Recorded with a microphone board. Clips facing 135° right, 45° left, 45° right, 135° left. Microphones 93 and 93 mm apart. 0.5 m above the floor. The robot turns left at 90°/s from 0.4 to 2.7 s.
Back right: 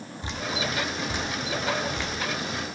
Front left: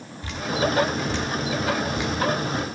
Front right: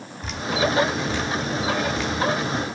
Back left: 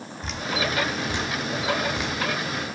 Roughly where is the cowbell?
I don't hear a cowbell.